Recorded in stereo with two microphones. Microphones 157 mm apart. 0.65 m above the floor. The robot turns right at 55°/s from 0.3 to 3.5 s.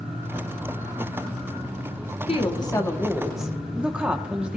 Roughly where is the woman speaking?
Behind left.